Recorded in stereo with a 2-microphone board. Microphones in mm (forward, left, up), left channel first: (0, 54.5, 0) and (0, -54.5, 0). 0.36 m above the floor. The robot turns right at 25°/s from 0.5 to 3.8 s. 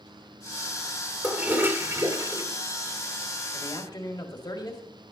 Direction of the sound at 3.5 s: 35° left (ahead or behind).